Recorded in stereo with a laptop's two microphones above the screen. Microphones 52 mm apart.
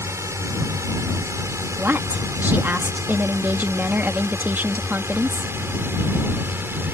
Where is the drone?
70° right (ahead or behind); by 6.9 s 45° right (ahead or behind).